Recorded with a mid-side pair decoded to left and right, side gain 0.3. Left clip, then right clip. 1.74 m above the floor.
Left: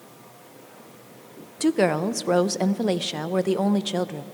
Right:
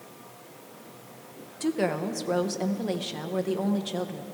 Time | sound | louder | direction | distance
1.6 | a woman speaking | left 6 dB | 70° left | 0.5 m